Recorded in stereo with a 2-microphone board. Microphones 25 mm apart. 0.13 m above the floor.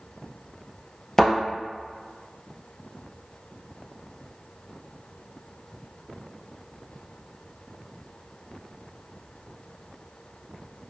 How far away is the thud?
About 1.4 m.